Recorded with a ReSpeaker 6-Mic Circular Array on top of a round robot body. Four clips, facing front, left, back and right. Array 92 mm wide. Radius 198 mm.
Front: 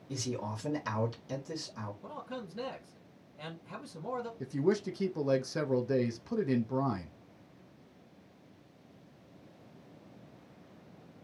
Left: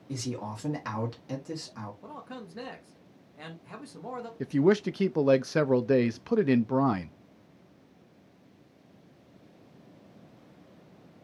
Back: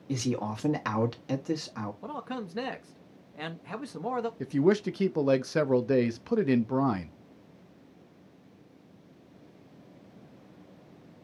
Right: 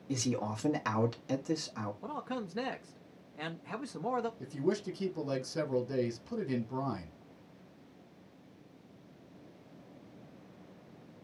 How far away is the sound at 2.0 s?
About 1.5 m.